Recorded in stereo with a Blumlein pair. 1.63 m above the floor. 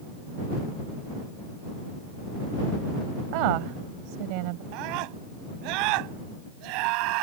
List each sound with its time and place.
3.3 s a woman speaking: 45° right
4.7 s a scream: 45° right